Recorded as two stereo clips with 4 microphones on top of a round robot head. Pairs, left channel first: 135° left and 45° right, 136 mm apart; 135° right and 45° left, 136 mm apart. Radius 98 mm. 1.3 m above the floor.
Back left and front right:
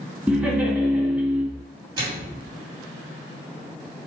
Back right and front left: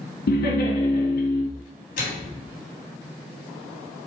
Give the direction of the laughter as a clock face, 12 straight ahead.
4 o'clock.